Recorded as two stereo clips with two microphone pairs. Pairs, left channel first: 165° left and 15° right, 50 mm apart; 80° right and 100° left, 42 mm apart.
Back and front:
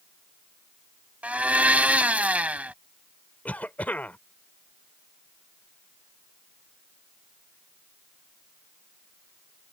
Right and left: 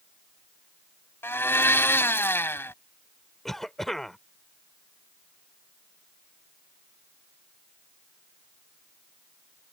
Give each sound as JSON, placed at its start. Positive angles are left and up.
{"t": 1.2, "sound": "a blender", "azimuth_deg": -70}
{"t": 3.5, "sound": "a cough", "azimuth_deg": -160}